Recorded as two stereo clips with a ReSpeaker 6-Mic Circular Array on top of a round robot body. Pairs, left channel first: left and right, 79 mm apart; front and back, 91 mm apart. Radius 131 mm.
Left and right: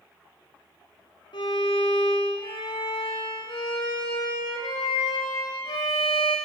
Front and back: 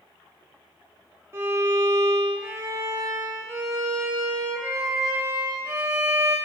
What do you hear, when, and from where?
1.3 s a violin: 115° left, 0.8 m